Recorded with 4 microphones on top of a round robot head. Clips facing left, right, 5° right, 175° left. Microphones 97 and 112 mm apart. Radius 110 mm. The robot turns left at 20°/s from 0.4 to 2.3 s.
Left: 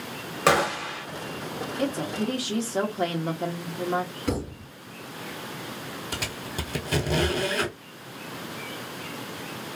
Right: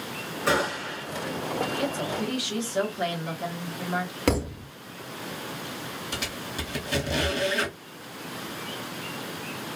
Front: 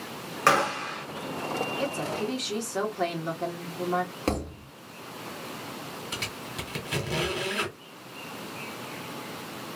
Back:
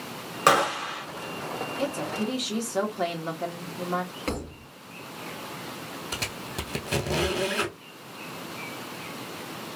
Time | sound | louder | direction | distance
0.5 | a gunshot | left 4 dB, back 2 dB | 105° left | 0.7 m
1.8 | a woman speaking | left 1 dB, back 1 dB | 110° left | 1.0 m
4.3 | a thud | right 4 dB, front 3 dB | 65° right | 0.8 m
6.1 | a squeak | left 1 dB, back 2 dB | 130° left | 1.2 m